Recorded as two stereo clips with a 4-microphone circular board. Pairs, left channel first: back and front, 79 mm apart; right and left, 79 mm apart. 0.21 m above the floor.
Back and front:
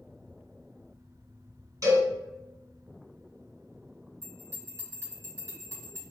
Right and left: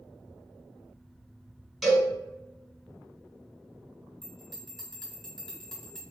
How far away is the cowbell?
About 2.0 m.